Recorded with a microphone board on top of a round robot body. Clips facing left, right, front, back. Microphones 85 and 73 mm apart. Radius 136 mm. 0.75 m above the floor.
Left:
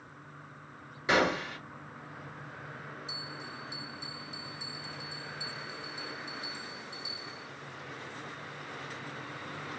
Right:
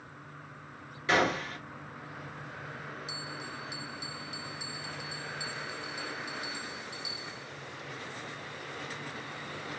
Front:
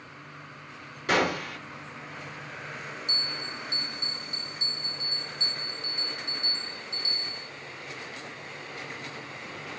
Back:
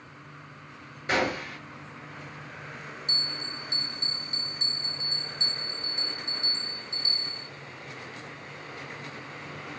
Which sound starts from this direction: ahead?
A gunshot, at 1.1 s.